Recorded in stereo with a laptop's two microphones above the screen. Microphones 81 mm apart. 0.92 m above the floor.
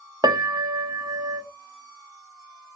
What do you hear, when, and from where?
0.2 s a piano: 55° right (ahead or behind), 0.5 m